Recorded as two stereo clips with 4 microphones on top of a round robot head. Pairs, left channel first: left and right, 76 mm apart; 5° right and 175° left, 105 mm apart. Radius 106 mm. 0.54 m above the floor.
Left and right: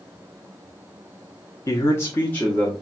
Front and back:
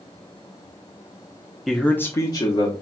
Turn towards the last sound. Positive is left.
turn(degrees=15)